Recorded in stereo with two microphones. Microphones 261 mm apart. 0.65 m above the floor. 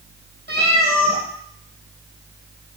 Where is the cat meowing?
40° right (ahead or behind), 3 m.